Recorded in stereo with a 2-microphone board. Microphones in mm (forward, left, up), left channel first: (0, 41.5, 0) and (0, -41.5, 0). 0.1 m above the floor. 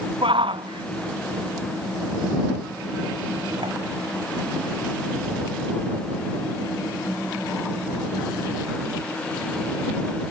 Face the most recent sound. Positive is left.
turn(degrees=-80)